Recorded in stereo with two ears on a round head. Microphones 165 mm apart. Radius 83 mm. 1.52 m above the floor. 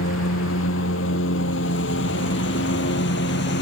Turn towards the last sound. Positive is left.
turn(degrees=65)  # may be behind; listen again after turning